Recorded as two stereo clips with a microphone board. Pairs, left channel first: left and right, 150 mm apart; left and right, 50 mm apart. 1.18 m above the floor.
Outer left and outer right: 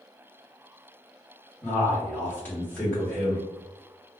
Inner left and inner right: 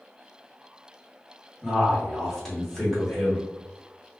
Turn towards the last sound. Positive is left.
turn(degrees=10)  # may be behind; listen again after turning